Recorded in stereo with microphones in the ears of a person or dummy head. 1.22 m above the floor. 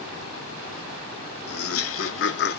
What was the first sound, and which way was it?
Laughter, 70° left (ahead or behind).